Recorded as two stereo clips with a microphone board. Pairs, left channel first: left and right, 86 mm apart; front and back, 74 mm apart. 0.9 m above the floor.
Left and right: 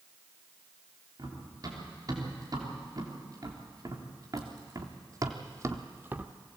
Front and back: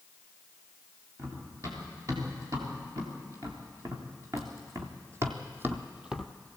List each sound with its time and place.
1.2 s running footsteps: 135° right, 6.5 m; by 6.3 s 80° right, 0.9 m